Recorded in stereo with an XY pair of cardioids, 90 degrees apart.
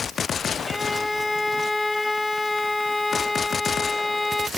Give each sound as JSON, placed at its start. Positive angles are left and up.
{"t": 0.7, "sound": "a violin", "azimuth_deg": 15}